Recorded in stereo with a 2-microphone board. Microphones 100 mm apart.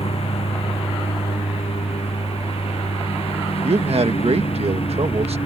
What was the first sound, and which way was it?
A lawn mower, 85° left.